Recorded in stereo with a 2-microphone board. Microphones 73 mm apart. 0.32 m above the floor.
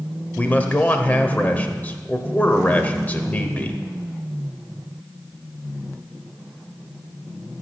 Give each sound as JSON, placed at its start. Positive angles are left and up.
{"t": 0.4, "sound": "a man speaking", "side_deg": 20, "distance_m": 1.0}